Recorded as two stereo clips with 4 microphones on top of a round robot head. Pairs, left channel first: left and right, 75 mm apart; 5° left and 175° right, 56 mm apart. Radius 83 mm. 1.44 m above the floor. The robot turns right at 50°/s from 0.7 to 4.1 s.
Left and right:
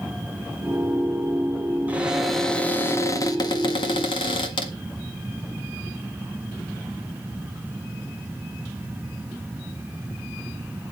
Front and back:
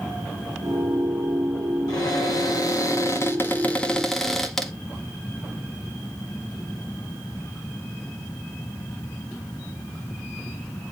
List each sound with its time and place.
1.9 s a cupboard door: 20° right, 1.6 m; by 4.7 s 90° left, 1.6 m